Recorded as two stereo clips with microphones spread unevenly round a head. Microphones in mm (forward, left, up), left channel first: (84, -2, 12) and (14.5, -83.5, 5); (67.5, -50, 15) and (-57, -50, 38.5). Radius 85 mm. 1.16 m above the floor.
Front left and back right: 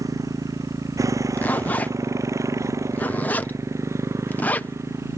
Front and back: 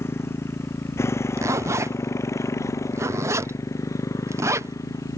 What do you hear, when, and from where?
0.0 s a motorcycle: 70° right; by 5.2 s 65° right
1.4 s a zipper: 115° left